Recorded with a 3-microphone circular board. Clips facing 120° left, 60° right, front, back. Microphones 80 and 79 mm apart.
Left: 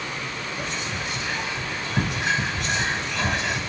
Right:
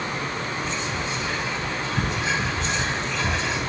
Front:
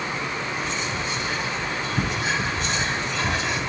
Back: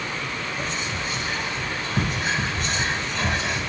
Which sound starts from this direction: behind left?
Whispering, at 0.6 s.